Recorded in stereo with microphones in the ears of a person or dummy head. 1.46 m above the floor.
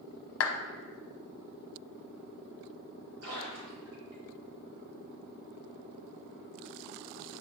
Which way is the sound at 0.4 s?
75° left (ahead or behind).